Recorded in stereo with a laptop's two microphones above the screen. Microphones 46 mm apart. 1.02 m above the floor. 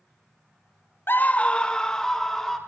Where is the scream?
55° left (ahead or behind), 0.5 m; by 2.6 s 10° left (ahead or behind), 2.5 m.